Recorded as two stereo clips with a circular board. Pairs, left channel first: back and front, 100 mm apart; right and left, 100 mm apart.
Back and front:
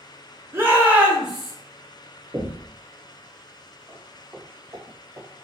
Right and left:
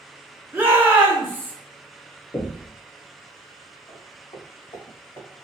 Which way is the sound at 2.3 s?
45° right.